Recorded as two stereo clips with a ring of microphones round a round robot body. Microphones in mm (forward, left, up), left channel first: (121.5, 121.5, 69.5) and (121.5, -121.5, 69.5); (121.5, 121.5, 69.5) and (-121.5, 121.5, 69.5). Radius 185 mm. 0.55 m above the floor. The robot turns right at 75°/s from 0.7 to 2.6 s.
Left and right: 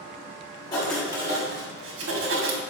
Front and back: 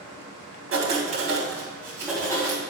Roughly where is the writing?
Behind.